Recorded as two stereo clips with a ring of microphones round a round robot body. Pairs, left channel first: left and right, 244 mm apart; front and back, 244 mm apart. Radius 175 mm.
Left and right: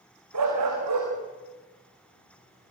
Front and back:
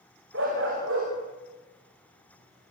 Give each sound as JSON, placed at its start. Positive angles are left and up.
{"t": 0.3, "sound": "a dog barking", "azimuth_deg": -120, "distance_m": 8.5}